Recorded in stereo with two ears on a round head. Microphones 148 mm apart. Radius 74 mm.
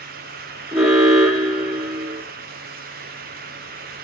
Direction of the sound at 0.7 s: 5° right (ahead or behind).